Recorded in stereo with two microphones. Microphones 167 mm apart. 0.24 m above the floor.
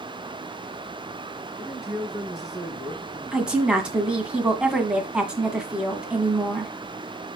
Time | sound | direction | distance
1.6 | a man speaking | centre (ahead or behind) | 5 m
3.3 | a woman speaking | 5° right (ahead or behind) | 1.9 m